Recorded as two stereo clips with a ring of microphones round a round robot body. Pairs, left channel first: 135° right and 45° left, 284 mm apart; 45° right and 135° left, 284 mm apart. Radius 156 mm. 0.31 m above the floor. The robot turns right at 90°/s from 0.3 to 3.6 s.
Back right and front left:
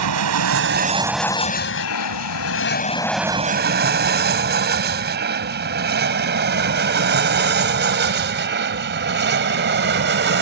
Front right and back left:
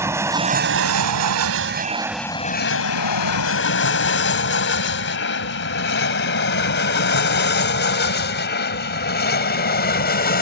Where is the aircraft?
55° left; by 10.4 s 5° left.